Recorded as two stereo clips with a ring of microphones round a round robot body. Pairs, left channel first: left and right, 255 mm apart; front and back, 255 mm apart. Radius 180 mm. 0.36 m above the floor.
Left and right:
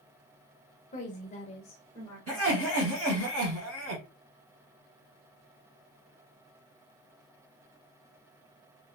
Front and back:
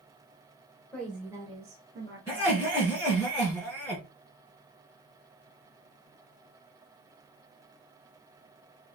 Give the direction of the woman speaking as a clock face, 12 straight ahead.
9 o'clock.